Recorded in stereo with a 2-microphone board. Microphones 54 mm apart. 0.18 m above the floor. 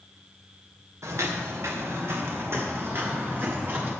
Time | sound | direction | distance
1.0 | footsteps | 65° right (ahead or behind) | 2 m